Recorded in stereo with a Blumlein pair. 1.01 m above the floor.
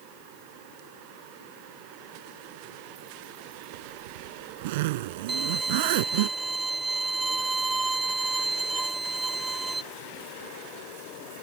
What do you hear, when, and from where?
3.7 s a zipper: 50° right
5.3 s a violin: 10° right